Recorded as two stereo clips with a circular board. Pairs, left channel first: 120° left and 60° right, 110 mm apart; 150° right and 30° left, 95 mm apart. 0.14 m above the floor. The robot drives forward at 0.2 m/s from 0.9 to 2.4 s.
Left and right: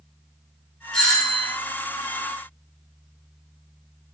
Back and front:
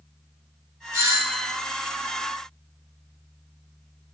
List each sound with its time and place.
0.9 s a doorbell: 45° left, 2 m; by 1.6 s 50° left, 2 m